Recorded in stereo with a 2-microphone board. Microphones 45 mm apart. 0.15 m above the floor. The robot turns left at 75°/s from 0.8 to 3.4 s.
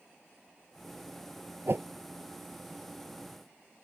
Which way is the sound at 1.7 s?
55° right (ahead or behind).